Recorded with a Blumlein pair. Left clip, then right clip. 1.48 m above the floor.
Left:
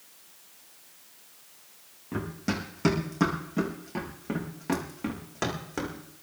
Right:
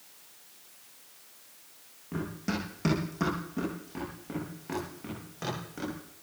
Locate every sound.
2.1 s running footsteps: 5° left, 6 m; by 6.0 s 30° left, 6.5 m